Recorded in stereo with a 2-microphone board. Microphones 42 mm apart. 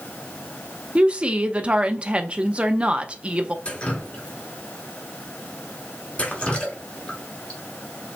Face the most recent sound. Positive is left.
turn(degrees=30)  # may be behind; listen again after turning